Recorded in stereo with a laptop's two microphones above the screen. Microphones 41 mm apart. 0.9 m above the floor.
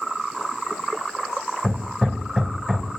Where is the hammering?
5° right (ahead or behind), 1.7 m.